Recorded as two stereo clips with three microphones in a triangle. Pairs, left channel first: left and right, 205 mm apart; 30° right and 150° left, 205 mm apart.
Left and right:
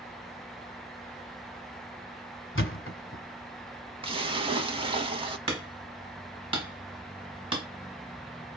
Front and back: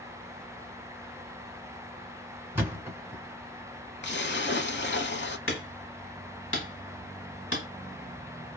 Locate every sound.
2.5 s a thud: 70° left, 0.8 m
4.0 s a splash: 25° right, 0.6 m
5.5 s hammering: 25° right, 1.4 m